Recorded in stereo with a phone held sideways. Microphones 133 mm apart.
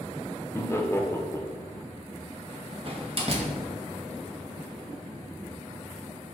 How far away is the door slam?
About 2 m.